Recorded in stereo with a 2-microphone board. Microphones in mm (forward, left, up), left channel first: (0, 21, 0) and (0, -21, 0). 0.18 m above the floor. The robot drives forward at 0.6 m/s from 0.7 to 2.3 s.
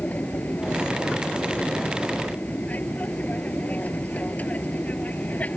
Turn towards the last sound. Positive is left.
turn(degrees=40)  # may be behind; listen again after turning